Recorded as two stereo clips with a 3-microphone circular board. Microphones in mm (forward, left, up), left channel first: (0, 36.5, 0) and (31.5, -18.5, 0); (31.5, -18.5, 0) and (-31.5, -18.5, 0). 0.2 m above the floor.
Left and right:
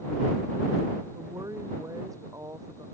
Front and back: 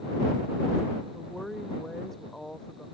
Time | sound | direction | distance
1.1 | a woman speaking | 85° right | ?